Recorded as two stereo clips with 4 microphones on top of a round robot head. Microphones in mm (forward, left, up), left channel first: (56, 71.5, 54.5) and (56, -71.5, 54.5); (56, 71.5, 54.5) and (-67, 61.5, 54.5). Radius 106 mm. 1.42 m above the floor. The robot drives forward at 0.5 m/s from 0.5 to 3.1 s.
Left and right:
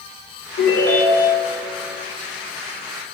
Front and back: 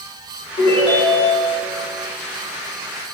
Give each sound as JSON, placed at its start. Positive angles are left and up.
{"t": 0.6, "sound": "a ringtone", "azimuth_deg": 50, "distance_m": 1.9}